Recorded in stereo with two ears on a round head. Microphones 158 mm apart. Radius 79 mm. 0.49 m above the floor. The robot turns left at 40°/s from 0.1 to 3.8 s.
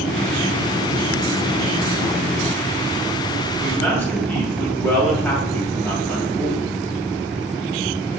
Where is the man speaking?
5° left (ahead or behind), 2.5 m; by 6.7 s 10° left (ahead or behind), 2.5 m.